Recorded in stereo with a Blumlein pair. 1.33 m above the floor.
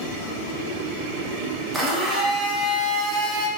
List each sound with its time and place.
1.7 s a blender: 5° right, 0.7 m